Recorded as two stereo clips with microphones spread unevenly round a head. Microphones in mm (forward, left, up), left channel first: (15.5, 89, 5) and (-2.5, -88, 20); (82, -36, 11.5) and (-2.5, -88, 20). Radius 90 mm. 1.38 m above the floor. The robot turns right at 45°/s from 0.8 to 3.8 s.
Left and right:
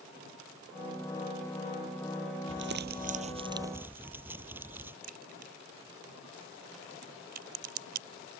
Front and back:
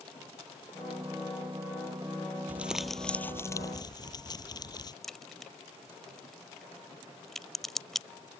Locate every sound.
2.5 s crumpling: 75° right; by 4.9 s 15° right
5.0 s a crack: 55° right